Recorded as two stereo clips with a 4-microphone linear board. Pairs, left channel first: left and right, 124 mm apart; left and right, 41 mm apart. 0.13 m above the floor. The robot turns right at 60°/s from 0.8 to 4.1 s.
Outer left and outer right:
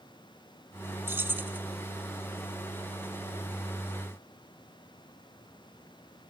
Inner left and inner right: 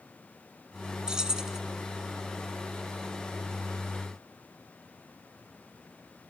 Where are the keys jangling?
20° right (ahead or behind), 0.8 m; by 1.6 s 15° right (ahead or behind), 0.8 m.